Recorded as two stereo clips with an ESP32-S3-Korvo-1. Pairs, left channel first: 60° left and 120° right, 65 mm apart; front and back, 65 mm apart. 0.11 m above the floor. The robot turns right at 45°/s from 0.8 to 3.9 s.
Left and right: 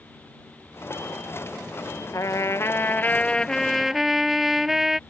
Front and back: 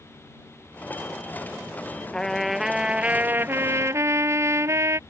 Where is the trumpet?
75° left; by 5.0 s 155° left.